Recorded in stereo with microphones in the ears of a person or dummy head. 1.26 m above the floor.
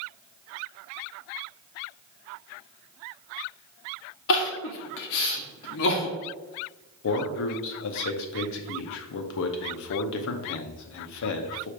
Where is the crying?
55° left (ahead or behind), 0.8 m.